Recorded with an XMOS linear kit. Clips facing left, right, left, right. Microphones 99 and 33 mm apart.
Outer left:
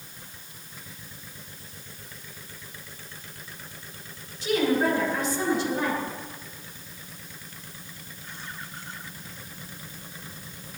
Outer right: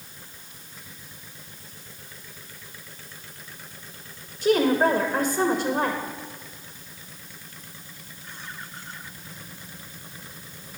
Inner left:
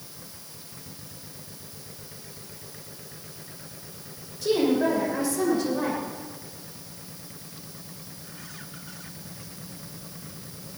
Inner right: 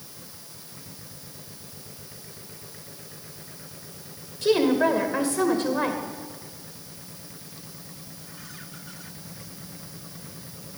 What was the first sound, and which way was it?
A woman speaking, 55° right (ahead or behind).